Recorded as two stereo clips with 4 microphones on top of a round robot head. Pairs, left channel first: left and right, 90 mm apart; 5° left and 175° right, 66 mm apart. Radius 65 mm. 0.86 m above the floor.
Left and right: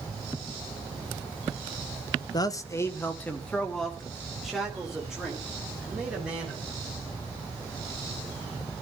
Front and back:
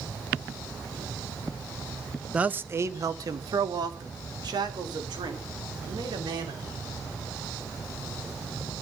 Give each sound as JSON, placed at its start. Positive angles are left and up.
{"t": 2.3, "sound": "a man speaking", "azimuth_deg": 115, "distance_m": 1.2}